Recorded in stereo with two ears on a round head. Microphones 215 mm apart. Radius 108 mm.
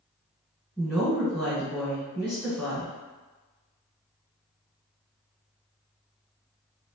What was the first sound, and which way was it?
A woman speaking, 5° right (ahead or behind).